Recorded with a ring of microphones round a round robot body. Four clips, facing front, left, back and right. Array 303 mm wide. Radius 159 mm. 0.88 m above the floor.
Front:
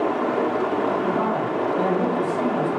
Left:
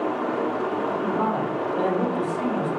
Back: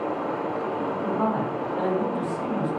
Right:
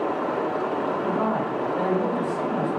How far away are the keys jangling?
No keys jangling in this recording.